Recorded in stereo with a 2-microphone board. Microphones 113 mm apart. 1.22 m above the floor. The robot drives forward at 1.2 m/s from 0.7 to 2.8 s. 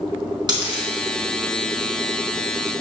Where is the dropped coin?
40° right (ahead or behind), 3.5 m.